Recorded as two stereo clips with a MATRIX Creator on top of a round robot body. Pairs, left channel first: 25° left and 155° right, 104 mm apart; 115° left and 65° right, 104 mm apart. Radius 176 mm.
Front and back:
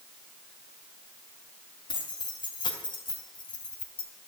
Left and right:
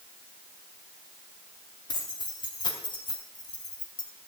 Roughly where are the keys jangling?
Left.